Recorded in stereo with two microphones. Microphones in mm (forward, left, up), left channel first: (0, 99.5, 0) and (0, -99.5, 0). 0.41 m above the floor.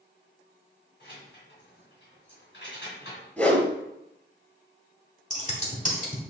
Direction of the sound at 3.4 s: 10° left (ahead or behind).